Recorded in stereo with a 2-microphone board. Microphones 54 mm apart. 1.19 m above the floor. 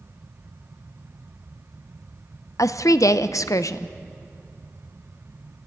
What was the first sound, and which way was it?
A woman speaking, 70° left (ahead or behind).